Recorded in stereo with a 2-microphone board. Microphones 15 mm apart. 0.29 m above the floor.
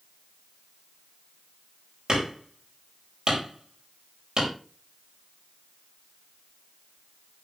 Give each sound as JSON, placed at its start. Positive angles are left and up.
{"t": 2.1, "sound": "hammering", "side_deg": -65, "distance_m": 5.0}